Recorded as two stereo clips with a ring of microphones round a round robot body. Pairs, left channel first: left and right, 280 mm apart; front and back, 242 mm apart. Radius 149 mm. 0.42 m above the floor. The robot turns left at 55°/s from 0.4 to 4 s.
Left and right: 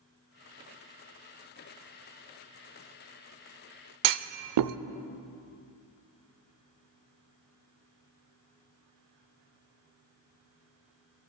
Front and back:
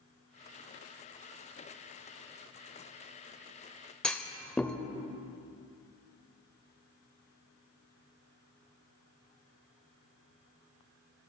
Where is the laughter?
No laughter in this recording.